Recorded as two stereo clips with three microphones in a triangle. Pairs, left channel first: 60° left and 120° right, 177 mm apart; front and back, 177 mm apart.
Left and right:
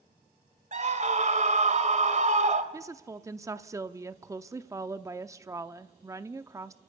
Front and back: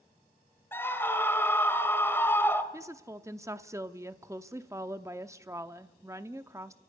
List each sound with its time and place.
0.7 s a scream: 75° right, 2 m
2.7 s a woman speaking: 150° right, 0.7 m